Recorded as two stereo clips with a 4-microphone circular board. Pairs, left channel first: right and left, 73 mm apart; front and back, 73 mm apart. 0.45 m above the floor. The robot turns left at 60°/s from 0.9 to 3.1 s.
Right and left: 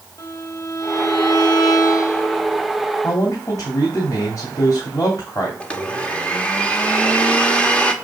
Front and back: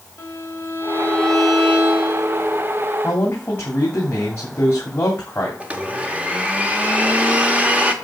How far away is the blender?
About 1.3 m.